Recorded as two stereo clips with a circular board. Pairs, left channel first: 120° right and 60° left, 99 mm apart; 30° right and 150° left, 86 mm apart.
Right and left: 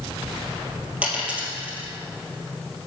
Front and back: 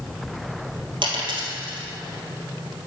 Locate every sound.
1.0 s a dropped coin: 135° left, 1.8 m